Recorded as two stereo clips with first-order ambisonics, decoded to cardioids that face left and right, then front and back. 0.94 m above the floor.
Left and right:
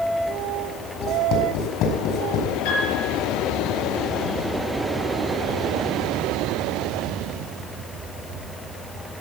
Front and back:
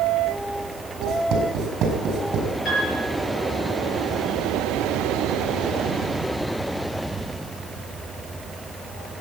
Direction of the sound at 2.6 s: 70° left.